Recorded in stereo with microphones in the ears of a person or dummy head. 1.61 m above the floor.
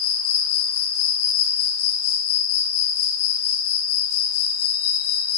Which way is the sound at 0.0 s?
80° left.